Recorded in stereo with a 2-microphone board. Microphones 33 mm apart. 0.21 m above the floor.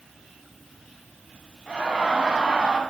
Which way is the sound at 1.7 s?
30° right (ahead or behind).